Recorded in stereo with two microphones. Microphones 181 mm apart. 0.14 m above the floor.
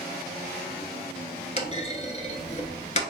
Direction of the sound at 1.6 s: 40° left (ahead or behind).